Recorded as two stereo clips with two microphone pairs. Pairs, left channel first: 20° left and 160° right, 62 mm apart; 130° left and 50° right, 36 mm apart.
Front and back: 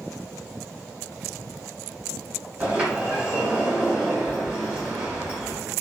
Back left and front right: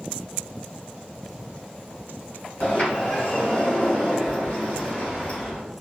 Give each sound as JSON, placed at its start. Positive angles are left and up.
{"t": 2.6, "sound": "a sliding door", "azimuth_deg": 135, "distance_m": 1.8}